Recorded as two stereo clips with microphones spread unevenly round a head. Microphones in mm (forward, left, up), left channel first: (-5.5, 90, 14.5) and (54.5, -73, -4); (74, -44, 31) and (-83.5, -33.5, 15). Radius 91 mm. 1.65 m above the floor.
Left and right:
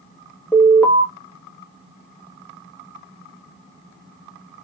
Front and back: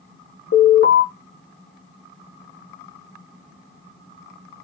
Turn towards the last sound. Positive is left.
turn(degrees=30)